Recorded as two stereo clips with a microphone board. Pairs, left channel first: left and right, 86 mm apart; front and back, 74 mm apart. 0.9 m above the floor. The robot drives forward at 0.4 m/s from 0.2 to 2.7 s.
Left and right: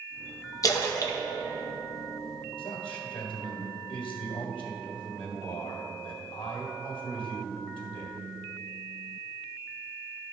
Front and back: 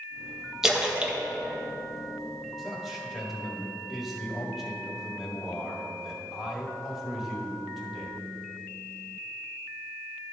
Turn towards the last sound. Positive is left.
turn(degrees=95)